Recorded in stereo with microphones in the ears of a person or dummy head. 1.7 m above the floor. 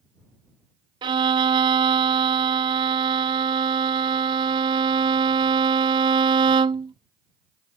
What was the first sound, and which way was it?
A violin, 25° right (ahead or behind).